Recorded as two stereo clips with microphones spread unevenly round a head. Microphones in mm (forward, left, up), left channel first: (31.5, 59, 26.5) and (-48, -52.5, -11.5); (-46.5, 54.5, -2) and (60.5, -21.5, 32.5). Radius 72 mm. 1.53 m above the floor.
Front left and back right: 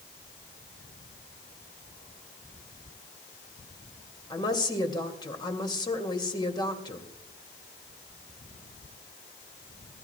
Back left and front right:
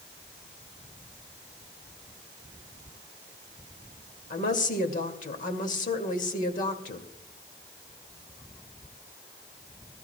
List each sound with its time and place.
4.3 s a woman speaking: 115° left, 2 m